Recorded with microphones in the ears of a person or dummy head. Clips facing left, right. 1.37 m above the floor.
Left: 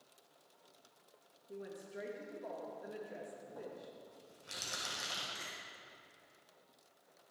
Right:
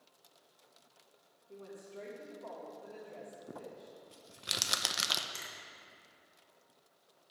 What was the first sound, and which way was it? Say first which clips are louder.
A woman speaking: left 2 dB; 15° left (ahead or behind).